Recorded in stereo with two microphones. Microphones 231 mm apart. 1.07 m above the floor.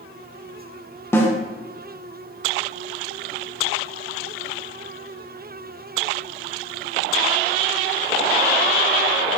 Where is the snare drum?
10° left (ahead or behind), 0.6 m.